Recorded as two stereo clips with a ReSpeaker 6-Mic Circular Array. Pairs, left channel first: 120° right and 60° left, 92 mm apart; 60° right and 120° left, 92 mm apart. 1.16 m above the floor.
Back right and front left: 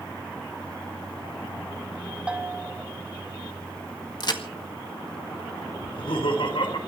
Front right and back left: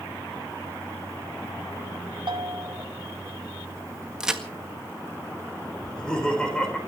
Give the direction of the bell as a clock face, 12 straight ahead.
7 o'clock.